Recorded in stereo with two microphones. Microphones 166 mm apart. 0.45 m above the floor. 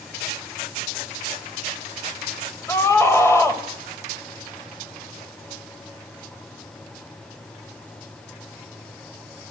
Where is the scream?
15° left (ahead or behind), 2.5 m.